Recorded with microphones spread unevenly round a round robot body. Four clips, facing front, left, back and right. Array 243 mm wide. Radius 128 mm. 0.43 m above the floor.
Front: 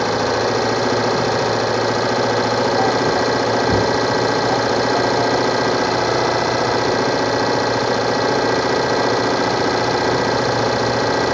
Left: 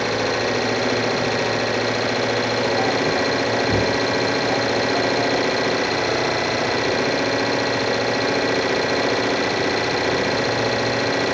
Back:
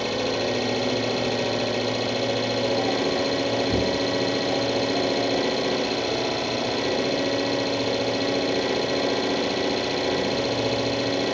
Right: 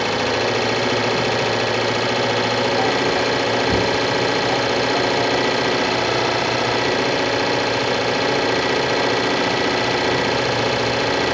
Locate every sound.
0.0 s an engine running: 5° right, 0.7 m